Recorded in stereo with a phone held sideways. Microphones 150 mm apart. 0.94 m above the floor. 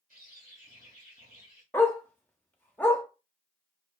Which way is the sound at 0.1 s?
70° right (ahead or behind).